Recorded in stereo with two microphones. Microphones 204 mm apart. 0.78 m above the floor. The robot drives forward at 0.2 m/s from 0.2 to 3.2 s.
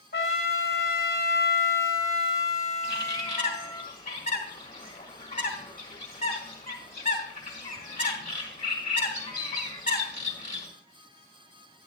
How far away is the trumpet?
About 1.9 m.